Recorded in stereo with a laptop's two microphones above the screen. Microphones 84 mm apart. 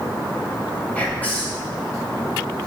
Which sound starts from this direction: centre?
Whispering, at 0.9 s.